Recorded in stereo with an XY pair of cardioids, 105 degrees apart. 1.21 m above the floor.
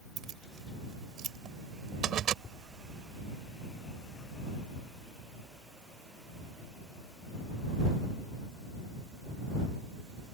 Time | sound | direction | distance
0.2 | keys jangling | 65° right | ?
2.4 | tapping | 40° left | ?